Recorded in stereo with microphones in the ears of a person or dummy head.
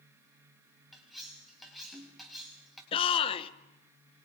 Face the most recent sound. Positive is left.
turn(degrees=25)  # may be behind; listen again after turning